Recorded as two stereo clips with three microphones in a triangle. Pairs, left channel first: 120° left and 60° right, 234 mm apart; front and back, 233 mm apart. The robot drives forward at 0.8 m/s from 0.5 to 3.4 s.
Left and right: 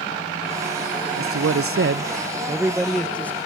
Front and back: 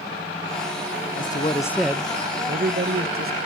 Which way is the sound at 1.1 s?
45° right.